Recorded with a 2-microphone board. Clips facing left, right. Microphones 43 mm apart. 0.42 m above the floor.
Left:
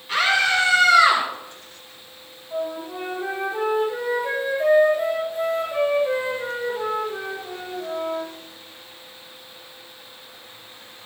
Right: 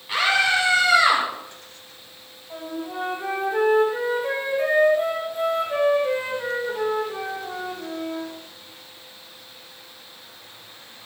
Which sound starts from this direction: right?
A flute, at 2.5 s.